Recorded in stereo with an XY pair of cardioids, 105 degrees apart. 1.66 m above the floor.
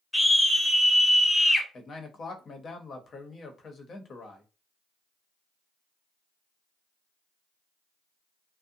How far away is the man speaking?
About 0.8 m.